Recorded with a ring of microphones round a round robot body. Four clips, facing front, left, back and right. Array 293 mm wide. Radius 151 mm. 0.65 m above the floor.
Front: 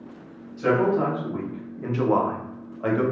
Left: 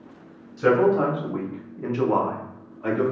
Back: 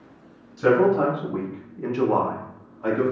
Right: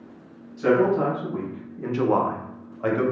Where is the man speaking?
130° left, 1.2 m; by 3.0 s 55° right, 1.0 m.